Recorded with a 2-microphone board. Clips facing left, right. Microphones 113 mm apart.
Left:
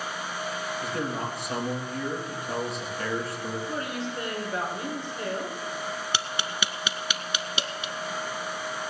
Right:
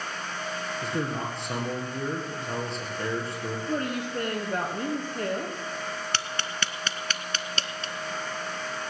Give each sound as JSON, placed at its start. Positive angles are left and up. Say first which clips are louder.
{"t": 0.8, "sound": "a man speaking", "louder": "right 1 dB", "side_deg": -25, "distance_m": 3.5}
{"t": 3.7, "sound": "a woman speaking", "louder": "right 3 dB", "side_deg": -45, "distance_m": 3.5}
{"t": 6.1, "sound": "tapping", "louder": "left 1 dB", "side_deg": 10, "distance_m": 0.6}